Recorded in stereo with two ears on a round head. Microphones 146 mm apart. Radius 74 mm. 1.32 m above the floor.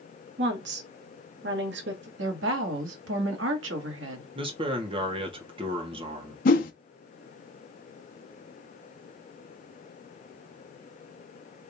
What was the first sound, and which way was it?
A woman speaking, 75° right (ahead or behind).